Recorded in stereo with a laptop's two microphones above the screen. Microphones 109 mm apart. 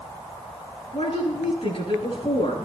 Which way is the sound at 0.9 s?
60° left (ahead or behind).